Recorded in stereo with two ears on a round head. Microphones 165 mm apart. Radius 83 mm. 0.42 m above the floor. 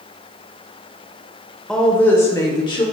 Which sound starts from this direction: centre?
A woman speaking, at 1.7 s.